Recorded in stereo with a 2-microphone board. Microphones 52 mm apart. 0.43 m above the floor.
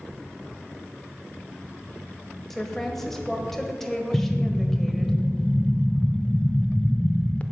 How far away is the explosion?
About 0.6 m.